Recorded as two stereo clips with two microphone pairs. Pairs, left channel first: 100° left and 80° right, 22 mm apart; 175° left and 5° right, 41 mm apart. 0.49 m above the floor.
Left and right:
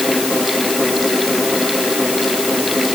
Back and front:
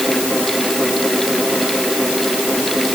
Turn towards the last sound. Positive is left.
No sound to turn to.